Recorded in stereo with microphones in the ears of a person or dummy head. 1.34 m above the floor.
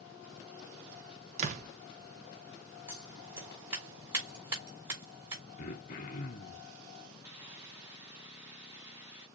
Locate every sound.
1.4 s a door slam: 45° right (ahead or behind), 1.1 m
2.9 s scissors: 10° right (ahead or behind), 3.5 m
5.6 s throat clearing: 40° left (ahead or behind), 0.8 m
7.2 s a hiss: 10° right (ahead or behind), 3 m